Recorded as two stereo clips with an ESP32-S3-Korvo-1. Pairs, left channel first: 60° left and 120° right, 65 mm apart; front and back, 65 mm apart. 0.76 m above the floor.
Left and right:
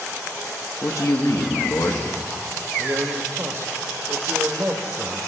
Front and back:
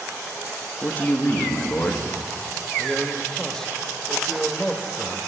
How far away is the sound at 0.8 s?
About 0.9 m.